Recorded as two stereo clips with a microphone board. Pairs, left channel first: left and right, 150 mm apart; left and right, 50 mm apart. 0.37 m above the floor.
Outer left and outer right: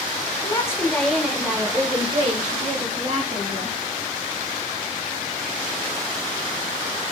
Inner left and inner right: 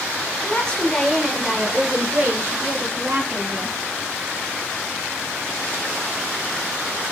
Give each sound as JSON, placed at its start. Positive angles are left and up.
{"t": 0.4, "sound": "a woman speaking", "side_deg": 25, "distance_m": 1.0}